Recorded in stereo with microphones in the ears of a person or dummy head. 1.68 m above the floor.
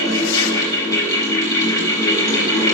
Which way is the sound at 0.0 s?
20° left (ahead or behind).